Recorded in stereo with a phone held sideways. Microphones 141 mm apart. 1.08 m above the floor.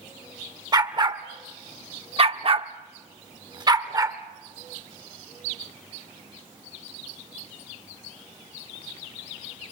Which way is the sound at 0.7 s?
30° right (ahead or behind).